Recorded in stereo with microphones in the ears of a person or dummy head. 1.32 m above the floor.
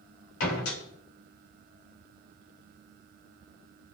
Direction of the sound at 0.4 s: 80° left.